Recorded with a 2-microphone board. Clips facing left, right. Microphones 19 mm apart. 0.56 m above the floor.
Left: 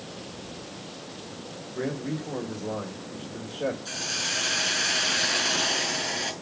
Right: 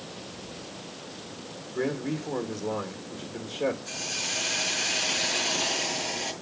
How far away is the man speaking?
About 1.8 m.